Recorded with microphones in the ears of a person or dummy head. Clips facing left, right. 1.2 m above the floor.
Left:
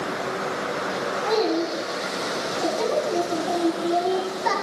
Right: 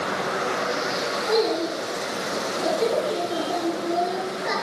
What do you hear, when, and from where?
1.3 s a child speaking: 80° left, 8 m